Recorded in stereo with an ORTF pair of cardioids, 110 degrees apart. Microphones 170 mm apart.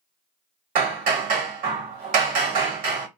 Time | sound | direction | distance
0.8 | hammering | 55° right | 1.3 m